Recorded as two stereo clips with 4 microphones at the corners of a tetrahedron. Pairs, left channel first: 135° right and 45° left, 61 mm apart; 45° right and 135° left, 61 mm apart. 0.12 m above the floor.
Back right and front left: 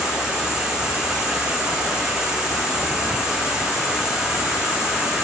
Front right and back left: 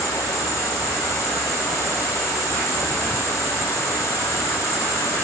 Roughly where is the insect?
Ahead right.